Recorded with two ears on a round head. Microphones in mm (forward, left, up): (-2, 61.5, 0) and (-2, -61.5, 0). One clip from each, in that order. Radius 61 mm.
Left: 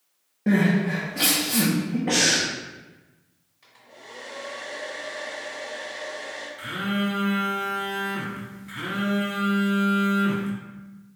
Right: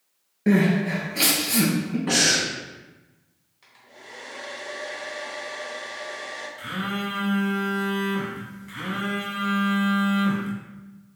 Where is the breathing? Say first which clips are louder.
Right 1 dB; 85° right, 1.3 m.